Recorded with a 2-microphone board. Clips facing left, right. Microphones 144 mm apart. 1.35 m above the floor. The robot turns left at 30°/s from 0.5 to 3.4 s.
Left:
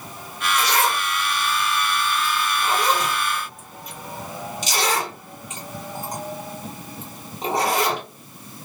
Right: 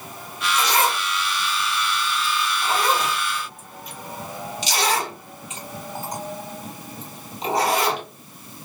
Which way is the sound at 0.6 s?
25° right (ahead or behind).